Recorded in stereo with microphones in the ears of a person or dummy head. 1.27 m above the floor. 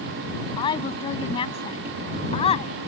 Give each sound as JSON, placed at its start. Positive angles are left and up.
{"t": 0.6, "sound": "a woman speaking", "side_deg": 25}